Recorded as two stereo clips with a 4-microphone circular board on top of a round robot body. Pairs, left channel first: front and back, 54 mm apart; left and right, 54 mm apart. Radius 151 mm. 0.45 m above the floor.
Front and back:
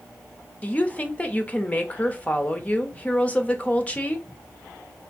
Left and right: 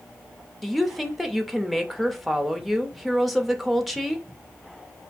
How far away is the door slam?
I don't hear a door slam.